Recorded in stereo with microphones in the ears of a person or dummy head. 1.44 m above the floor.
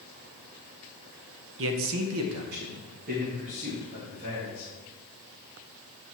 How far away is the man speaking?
About 0.9 m.